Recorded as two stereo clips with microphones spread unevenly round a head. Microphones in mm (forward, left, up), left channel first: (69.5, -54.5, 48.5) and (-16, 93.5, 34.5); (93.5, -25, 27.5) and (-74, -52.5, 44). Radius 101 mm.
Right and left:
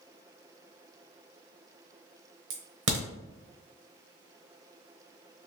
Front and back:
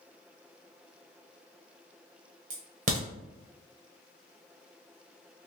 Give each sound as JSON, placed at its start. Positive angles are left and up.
{"t": 2.5, "sound": "a crack", "azimuth_deg": 150, "distance_m": 1.0}